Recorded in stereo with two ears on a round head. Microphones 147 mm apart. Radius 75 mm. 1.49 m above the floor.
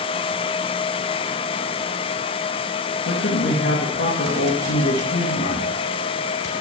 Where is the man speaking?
75° left (ahead or behind), 2 m.